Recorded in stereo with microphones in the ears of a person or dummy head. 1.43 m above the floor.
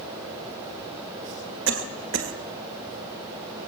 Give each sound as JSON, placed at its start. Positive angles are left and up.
{"t": 1.7, "sound": "a cough", "side_deg": -70, "distance_m": 1.5}